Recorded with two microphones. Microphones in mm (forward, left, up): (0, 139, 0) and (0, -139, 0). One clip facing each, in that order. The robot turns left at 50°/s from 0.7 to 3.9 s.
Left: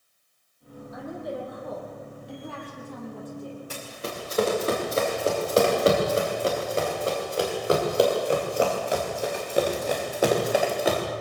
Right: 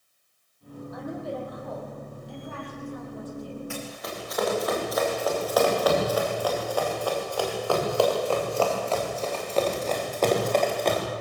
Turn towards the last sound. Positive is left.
turn(degrees=5)  # may be behind; listen again after turning